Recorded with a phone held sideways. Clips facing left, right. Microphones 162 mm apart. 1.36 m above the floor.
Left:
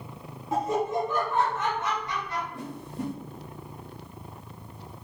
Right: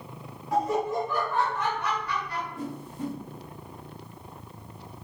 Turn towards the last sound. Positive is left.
turn(degrees=75)  # may be behind; listen again after turning